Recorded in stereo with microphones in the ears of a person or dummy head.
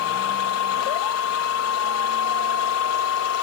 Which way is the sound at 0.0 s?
75° left (ahead or behind).